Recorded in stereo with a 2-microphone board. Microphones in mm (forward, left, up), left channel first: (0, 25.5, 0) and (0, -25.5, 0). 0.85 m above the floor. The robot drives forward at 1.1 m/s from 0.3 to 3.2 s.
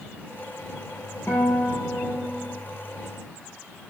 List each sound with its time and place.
1.3 s a guitar: 50° left (ahead or behind), 4 m; by 2.6 s 35° left (ahead or behind), 5 m